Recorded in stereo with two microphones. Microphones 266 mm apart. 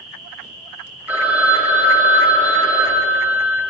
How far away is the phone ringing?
About 1.2 m.